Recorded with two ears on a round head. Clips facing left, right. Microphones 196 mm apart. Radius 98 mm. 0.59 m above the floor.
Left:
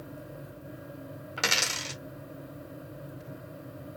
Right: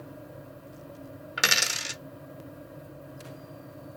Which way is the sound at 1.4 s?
20° right (ahead or behind).